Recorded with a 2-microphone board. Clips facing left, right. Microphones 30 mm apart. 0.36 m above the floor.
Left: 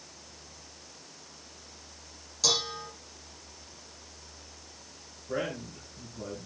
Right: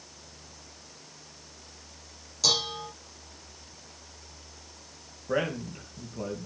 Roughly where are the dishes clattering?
Centre.